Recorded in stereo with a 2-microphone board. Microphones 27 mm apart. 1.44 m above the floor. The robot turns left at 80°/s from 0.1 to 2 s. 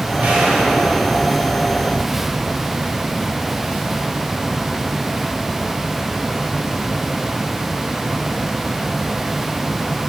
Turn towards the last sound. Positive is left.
turn(degrees=145)